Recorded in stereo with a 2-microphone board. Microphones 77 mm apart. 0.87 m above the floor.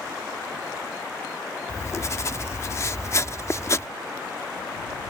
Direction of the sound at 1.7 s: 40° left (ahead or behind).